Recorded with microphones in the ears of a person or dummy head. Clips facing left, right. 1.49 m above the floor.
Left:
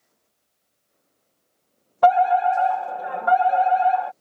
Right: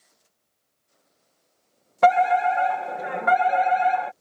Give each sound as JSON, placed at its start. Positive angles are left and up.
{"t": 2.0, "sound": "a fire alarm", "side_deg": -35}